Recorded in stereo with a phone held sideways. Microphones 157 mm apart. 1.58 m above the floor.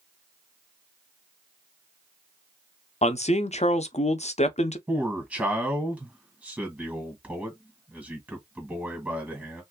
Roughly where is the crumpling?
No crumpling in this recording.